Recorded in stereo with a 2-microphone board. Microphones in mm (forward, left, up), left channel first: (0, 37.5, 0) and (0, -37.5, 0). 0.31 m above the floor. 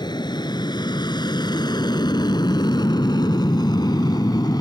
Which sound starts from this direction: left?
An aircraft, at 0.0 s.